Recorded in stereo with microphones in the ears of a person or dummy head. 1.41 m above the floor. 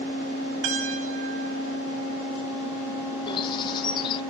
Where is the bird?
25° left (ahead or behind), 1.1 m.